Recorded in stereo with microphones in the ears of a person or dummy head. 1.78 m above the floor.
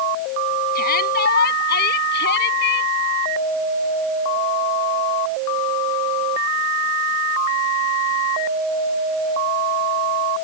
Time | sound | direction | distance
0.8 | a shout | 50° left (ahead or behind) | ?